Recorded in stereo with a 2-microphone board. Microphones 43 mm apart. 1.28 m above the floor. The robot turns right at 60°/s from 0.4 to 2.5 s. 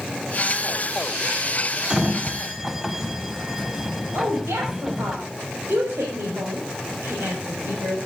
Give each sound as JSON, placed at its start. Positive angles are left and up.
{"t": 1.9, "sound": "a sliding door", "side_deg": -20, "distance_m": 1.2}
{"t": 4.1, "sound": "a woman speaking", "side_deg": -85, "distance_m": 6.0}